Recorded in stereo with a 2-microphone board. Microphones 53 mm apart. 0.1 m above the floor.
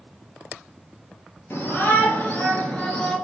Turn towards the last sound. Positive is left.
turn(degrees=0)  # may be behind; listen again after turning